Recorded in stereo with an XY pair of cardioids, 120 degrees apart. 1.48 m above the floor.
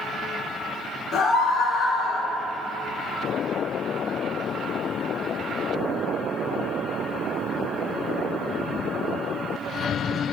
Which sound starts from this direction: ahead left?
A scream, at 1.1 s.